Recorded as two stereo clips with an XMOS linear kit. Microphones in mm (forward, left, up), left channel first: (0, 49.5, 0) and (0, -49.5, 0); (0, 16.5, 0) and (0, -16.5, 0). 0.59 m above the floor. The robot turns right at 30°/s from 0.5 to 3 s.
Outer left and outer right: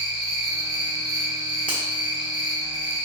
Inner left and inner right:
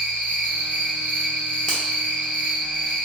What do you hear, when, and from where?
0.0 s an insect: 80° left, 1.3 m; by 3.1 s 155° left, 1.3 m
1.7 s a finger snap: 15° left (ahead or behind), 1.1 m; by 1.8 s 10° left (ahead or behind), 1.1 m